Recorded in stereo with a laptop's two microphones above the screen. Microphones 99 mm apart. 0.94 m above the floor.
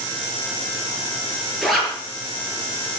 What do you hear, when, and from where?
1.6 s a zipper: centre (ahead or behind), 7 m